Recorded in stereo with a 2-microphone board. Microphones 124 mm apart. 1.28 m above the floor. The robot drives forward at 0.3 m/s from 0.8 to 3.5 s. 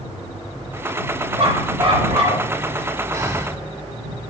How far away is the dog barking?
About 5.5 m.